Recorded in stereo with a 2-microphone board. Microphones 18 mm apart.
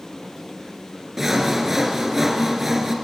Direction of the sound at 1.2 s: 20° right (ahead or behind).